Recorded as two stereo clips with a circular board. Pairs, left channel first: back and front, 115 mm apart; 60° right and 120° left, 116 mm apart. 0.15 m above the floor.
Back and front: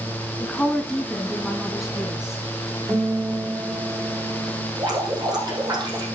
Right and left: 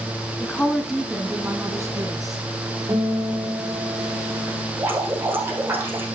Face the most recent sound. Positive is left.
turn(degrees=50)